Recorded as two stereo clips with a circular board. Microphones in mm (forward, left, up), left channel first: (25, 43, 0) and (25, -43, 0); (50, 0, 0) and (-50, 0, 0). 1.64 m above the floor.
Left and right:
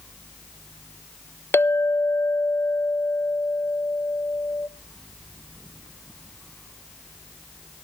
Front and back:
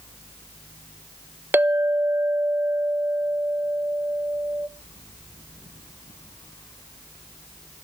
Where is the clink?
125° left, 0.6 m.